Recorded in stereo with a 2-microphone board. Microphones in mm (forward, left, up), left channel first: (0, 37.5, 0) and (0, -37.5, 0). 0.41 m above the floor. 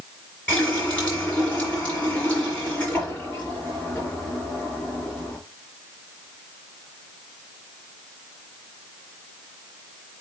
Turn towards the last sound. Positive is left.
turn(degrees=15)  # may be behind; listen again after turning